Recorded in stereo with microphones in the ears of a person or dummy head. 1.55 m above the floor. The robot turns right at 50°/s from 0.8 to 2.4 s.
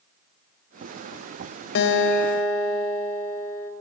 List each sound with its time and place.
1.8 s a guitar: 105° left, 1.0 m; by 3.7 s 135° left, 1.0 m